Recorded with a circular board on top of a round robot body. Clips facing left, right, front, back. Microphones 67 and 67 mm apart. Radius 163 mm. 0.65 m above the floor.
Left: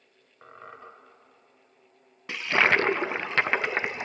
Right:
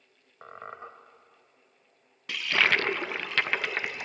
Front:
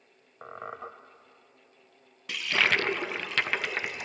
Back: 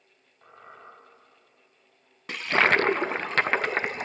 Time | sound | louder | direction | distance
0.4 | a squeak | right 3 dB, front 8 dB | 20° right | 0.6 m
2.3 | a toilet flushing | left 3 dB, back 5 dB | 145° left | 0.6 m